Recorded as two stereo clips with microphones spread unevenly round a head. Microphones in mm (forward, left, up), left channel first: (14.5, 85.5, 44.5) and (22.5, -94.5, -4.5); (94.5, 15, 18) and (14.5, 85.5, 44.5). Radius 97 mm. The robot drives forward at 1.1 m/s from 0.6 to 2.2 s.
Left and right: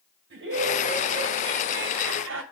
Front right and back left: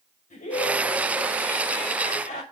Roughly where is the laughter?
Ahead right.